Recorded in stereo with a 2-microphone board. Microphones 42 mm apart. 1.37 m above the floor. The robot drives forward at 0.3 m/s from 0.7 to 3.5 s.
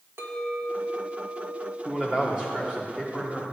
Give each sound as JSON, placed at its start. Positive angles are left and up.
{"t": 0.2, "sound": "a clink", "side_deg": -65, "distance_m": 1.2}
{"t": 1.9, "sound": "a man speaking", "side_deg": -25, "distance_m": 1.4}